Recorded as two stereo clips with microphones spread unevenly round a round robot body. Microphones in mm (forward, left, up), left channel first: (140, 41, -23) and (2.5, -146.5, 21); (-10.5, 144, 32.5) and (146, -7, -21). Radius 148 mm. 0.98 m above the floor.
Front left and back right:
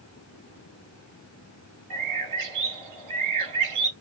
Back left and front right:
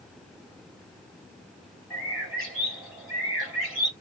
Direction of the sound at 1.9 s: 150° right.